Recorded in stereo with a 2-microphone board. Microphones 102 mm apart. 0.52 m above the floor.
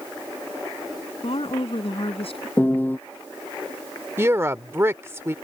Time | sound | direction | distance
1.2 | a woman speaking | 65° left (ahead or behind) | ?
2.6 | a piano | 20° left (ahead or behind) | ?
4.2 | a woman speaking | 25° right (ahead or behind) | ?